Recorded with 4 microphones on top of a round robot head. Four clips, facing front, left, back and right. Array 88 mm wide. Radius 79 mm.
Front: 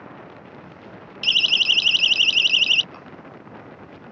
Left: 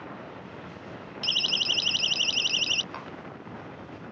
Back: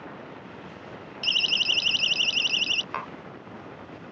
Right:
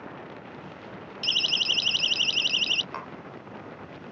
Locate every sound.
1.2 s a siren: straight ahead; by 2.8 s 10° left
2.9 s tapping: 165° right